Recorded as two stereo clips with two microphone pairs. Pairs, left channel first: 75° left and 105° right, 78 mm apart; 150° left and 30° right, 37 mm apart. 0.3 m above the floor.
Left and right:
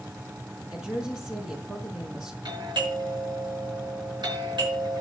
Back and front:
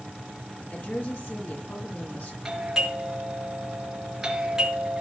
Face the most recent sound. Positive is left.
turn(degrees=-105)